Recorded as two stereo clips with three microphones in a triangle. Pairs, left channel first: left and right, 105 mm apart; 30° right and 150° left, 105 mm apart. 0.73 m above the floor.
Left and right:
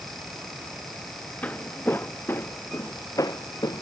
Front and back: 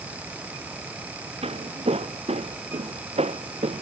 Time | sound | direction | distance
1.4 | footsteps | 165° left | ?